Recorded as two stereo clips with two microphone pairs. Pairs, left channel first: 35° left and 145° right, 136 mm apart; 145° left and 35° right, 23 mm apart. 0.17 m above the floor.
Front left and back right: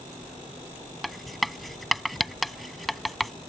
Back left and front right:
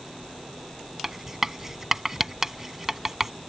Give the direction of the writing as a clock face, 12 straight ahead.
2 o'clock.